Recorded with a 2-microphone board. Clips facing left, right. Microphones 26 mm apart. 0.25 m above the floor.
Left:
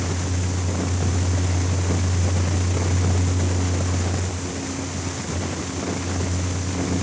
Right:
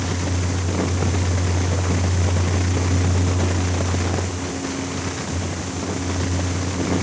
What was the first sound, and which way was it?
Only background noise.